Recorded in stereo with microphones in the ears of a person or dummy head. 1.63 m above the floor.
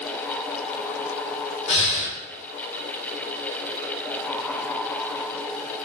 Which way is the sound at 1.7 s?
40° left (ahead or behind).